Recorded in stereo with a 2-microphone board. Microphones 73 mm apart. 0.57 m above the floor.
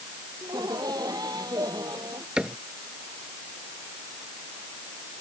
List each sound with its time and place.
0.4 s laughter: 65° right (ahead or behind)
2.4 s a cupboard door: 10° right (ahead or behind)